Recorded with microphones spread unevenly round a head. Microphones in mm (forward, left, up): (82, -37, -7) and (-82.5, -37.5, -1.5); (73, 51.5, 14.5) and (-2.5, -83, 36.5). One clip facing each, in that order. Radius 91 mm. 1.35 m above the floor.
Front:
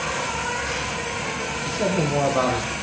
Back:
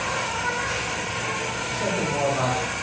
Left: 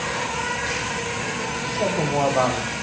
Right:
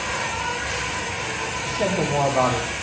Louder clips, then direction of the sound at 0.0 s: Front 1 dB, left 1 dB; 55° left.